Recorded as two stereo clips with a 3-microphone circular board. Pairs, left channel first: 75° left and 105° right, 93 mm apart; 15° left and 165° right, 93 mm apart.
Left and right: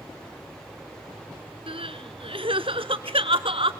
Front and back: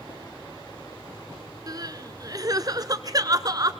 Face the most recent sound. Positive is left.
turn(degrees=-120)